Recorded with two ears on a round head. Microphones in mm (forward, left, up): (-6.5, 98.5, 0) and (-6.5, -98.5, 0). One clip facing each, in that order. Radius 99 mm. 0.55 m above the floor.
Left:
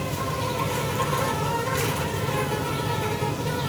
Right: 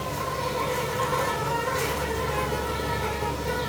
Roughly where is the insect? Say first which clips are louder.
Left 1 dB; left.